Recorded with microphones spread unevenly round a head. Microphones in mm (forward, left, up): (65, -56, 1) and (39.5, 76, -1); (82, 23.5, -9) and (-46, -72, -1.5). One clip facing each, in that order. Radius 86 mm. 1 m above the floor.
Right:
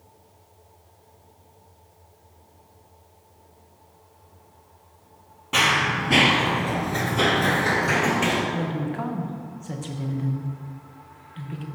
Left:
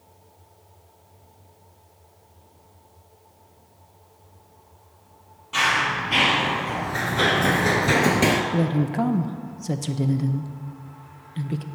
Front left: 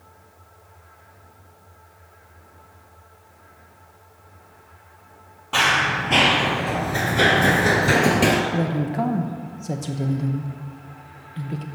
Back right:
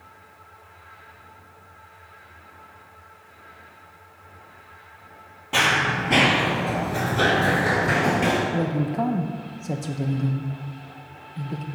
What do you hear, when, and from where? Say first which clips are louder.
5.5 s running footsteps: right 1 dB, front left 1 dB; 75° right, 1.9 m; by 8.4 s 75° left, 1.4 m
8.5 s a woman speaking: left 5 dB, front left 1 dB; 120° left, 0.6 m